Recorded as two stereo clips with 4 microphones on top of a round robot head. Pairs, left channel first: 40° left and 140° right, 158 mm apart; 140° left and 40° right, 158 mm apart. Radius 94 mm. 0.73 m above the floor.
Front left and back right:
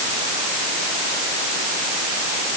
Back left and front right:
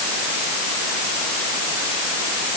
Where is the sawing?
No sawing in this recording.